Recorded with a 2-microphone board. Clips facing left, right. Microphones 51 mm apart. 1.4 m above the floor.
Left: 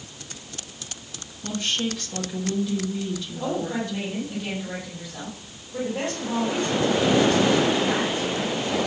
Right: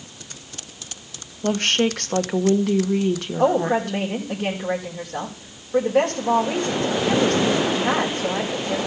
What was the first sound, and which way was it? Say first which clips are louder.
A woman speaking: right 7 dB; 70° right (ahead or behind).